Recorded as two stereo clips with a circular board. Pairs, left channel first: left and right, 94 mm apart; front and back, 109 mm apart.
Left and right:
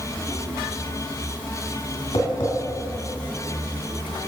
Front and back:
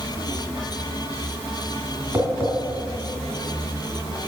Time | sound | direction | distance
2.1 | tapping | 110° left | 2 m